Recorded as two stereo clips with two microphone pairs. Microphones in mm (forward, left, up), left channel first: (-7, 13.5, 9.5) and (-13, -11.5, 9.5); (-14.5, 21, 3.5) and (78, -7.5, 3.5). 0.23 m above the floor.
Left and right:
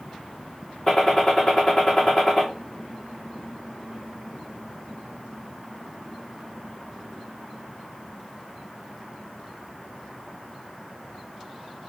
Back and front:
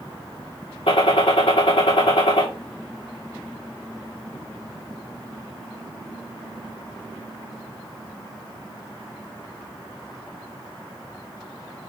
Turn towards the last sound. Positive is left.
turn(degrees=155)